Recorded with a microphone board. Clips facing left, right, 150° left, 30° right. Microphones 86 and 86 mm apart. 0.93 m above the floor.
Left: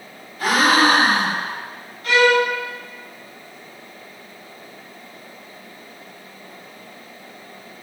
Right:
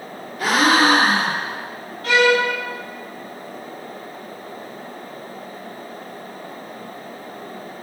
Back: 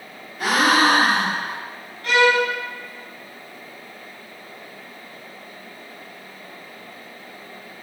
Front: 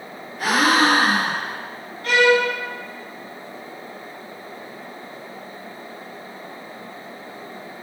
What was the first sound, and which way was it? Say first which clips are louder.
A gasp: even, even; 115° right.